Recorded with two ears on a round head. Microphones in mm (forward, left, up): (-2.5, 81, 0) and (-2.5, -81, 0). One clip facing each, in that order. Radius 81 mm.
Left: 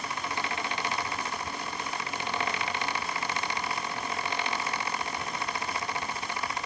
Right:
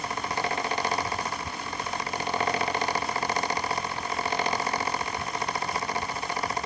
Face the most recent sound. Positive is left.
No sound to turn to.